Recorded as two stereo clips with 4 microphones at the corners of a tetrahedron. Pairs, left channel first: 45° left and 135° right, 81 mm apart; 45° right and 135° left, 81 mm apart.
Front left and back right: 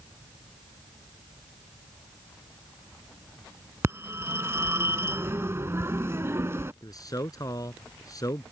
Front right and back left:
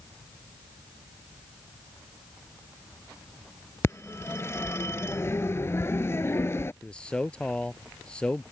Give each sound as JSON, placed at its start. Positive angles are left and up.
{"t": 3.8, "sound": "a phone ringing", "azimuth_deg": -90}
{"t": 6.8, "sound": "a man speaking", "azimuth_deg": 30}